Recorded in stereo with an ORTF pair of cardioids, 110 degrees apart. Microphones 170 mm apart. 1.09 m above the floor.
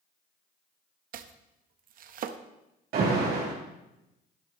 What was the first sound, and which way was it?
Chopping, 55° right.